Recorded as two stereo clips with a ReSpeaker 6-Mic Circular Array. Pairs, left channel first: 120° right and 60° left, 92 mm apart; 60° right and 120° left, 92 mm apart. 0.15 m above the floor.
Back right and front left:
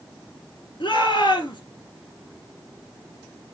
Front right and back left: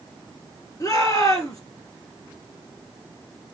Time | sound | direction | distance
0.8 | a shout | 105° right | 3 m